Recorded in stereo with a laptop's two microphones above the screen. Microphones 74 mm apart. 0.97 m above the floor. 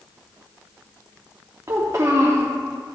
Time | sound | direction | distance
1.7 | a child speaking | 40° right (ahead or behind) | 0.9 m